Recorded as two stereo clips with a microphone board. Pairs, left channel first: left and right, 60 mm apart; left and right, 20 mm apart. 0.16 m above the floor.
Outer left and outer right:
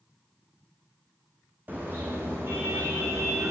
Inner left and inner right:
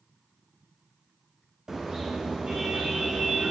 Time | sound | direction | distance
1.7 | a car horn | 30° right (ahead or behind) | 5.5 m